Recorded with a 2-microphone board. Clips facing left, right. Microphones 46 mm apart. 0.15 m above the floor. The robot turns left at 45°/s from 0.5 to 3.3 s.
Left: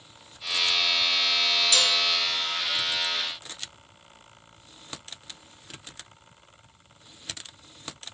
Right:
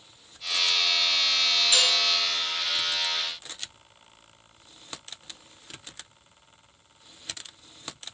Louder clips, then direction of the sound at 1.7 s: Right 1 dB; 20° right (ahead or behind).